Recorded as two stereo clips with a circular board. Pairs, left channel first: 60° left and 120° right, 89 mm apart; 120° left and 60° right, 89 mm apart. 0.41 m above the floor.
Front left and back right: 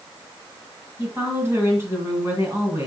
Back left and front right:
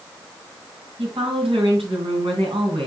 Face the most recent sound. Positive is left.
turn(degrees=-60)